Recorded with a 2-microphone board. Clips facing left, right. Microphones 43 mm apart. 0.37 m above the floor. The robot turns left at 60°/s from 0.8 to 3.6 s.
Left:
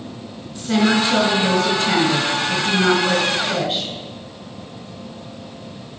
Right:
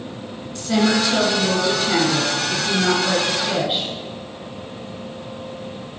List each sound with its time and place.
0.6 s a woman speaking: 160° left, 2.5 m; by 3.9 s 10° right, 2.5 m